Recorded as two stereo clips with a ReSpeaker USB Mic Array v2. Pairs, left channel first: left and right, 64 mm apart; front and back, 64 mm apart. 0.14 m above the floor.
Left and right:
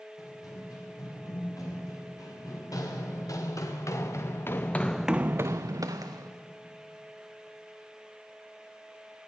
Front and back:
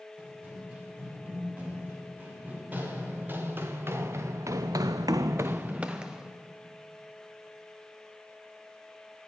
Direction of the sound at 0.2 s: 110° left.